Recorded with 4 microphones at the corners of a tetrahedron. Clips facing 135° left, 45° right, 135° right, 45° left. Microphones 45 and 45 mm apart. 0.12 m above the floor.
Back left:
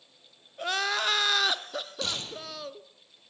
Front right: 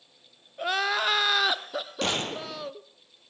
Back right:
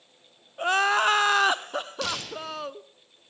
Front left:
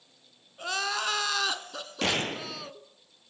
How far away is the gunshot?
About 0.8 m.